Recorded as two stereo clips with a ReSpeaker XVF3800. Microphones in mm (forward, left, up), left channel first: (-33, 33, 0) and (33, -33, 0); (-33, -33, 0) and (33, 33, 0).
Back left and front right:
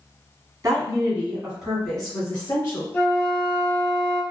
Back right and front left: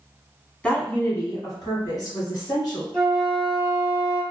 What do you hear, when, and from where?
0.6 s a woman speaking: 70° right, 1.3 m; by 2.8 s 165° right, 1.9 m
2.9 s a flute: 160° left, 0.9 m